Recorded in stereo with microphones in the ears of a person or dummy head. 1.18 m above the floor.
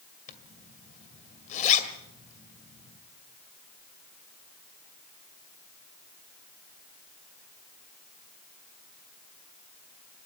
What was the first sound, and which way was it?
A zipper, 40° left (ahead or behind).